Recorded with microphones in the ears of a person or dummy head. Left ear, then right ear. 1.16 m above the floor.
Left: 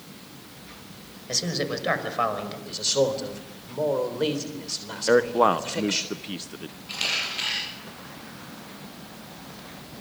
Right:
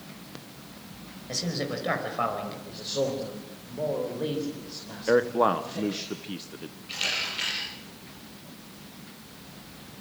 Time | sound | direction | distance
1.3 | a man speaking | 15° left (ahead or behind) | 5.5 m
2.7 | a man speaking | 75° left (ahead or behind) | 3.5 m
5.1 | a man speaking | 10° left (ahead or behind) | 0.7 m
6.9 | a camera shutter | 15° left (ahead or behind) | 8 m